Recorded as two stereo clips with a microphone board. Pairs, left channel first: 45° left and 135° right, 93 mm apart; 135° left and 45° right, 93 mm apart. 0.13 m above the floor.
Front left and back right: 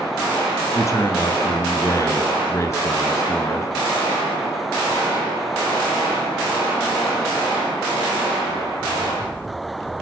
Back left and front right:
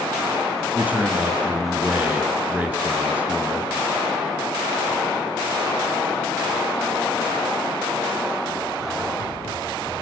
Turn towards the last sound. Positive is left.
turn(degrees=20)